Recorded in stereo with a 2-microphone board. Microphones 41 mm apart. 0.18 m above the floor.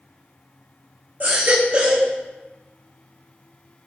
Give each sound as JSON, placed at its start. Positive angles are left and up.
{"t": 1.2, "sound": "a baby crying", "side_deg": -40, "distance_m": 6.0}